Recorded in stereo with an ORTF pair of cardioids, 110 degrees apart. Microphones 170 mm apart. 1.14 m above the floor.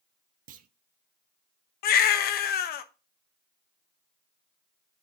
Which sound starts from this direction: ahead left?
A baby crying, at 1.8 s.